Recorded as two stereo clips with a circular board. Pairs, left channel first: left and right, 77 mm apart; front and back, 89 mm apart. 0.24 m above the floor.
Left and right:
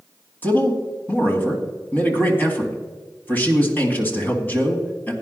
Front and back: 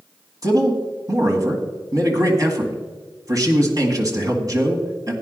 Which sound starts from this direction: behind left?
A man speaking, at 0.4 s.